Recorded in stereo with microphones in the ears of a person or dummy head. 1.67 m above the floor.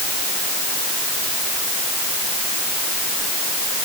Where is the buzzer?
I don't hear a buzzer.